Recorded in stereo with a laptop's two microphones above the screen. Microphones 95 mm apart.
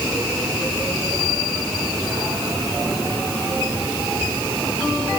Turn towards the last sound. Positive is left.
No sound to turn to.